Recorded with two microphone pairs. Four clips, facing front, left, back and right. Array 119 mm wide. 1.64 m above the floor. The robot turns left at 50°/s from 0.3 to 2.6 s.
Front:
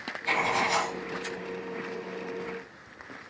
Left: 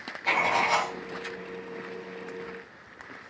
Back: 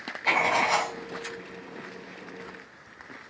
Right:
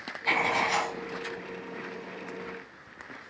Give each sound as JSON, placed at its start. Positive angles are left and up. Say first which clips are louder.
{"t": 0.2, "sound": "writing", "louder": "left 2 dB, back 3 dB", "azimuth_deg": 170, "distance_m": 1.3}